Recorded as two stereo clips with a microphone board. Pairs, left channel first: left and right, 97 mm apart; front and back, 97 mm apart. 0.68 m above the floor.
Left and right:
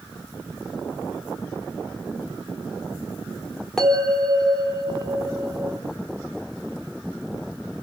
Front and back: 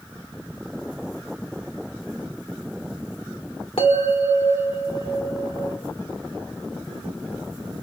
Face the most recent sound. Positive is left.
turn(degrees=5)